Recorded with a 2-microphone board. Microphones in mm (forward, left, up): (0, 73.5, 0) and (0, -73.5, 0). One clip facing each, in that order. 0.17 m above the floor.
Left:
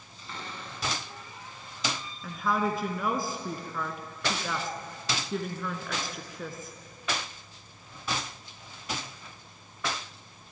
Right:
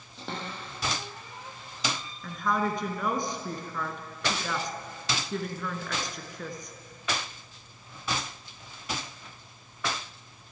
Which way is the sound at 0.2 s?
80° right.